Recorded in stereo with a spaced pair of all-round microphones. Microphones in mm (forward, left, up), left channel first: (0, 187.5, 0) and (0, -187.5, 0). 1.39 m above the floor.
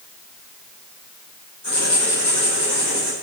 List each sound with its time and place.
1.6 s writing: 45° left (ahead or behind), 5 m